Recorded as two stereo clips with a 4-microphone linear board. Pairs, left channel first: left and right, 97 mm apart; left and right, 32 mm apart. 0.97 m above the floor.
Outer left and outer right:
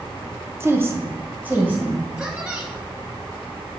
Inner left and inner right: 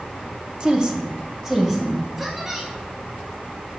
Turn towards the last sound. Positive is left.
turn(degrees=-10)  # may be behind; listen again after turning